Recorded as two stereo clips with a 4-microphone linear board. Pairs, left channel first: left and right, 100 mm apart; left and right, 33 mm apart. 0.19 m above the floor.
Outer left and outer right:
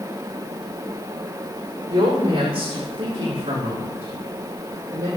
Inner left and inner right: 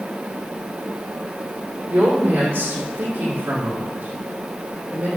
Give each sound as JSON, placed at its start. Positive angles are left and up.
{"t": 1.9, "sound": "a woman speaking", "side_deg": -50, "distance_m": 7.0}